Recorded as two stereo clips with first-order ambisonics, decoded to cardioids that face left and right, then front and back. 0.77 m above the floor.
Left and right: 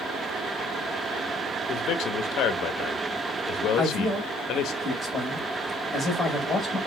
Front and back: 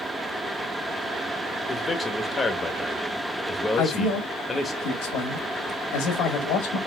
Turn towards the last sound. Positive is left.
turn(degrees=-5)